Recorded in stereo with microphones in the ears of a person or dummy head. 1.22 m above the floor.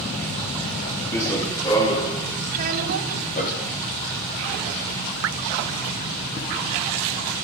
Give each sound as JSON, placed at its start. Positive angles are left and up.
{"t": 1.1, "sound": "running footsteps", "side_deg": 10, "distance_m": 6.5}
{"t": 2.5, "sound": "a child speaking", "side_deg": -50, "distance_m": 5.0}
{"t": 5.2, "sound": "dripping", "side_deg": -65, "distance_m": 0.7}